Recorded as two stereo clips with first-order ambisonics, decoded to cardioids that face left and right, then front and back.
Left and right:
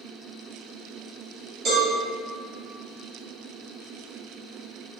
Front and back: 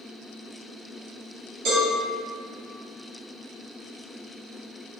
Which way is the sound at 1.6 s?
145° right.